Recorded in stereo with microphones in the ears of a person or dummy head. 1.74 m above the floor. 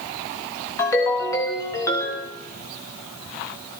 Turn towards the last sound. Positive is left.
turn(degrees=20)  # may be behind; listen again after turning